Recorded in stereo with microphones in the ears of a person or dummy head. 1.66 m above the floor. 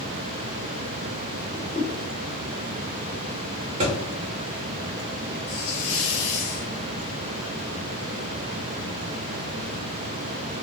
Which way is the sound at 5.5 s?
30° left (ahead or behind).